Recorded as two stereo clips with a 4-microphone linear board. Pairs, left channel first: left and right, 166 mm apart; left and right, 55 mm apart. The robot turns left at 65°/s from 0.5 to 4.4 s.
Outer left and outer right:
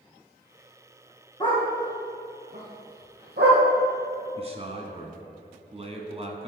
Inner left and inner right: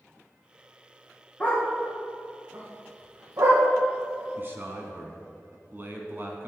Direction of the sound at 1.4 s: 35° left (ahead or behind).